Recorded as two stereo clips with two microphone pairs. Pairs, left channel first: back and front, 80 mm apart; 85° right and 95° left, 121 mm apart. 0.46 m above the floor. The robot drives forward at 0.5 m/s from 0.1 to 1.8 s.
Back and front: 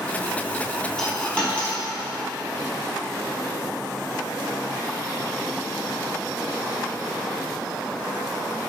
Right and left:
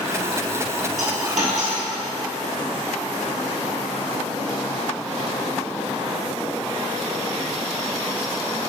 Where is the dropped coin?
100° left, 1.7 m; by 1.8 s 110° left, 1.8 m.